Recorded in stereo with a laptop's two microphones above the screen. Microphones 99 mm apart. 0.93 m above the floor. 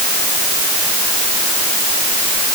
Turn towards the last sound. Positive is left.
No sound to turn to.